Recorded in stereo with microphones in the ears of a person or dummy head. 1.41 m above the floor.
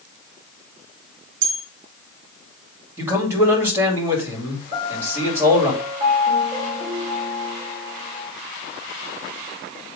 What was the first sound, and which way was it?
A bell, 75° right (ahead or behind).